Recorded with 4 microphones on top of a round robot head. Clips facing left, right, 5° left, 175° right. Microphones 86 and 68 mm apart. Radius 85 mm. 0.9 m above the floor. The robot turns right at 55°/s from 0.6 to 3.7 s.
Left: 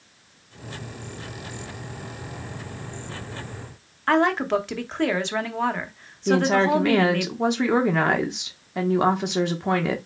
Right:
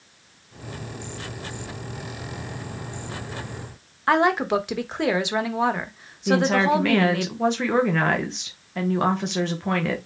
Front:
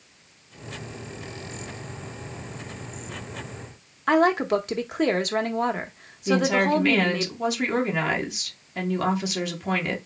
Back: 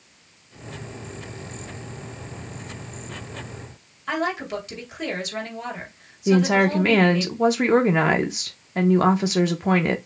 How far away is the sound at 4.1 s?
About 1.1 m.